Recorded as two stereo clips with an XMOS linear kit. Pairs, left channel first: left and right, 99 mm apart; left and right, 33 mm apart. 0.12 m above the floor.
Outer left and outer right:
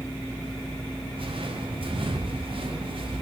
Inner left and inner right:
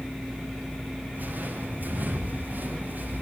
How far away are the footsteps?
About 9.5 m.